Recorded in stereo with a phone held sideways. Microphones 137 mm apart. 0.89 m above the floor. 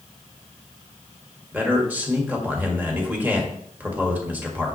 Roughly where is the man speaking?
Centre.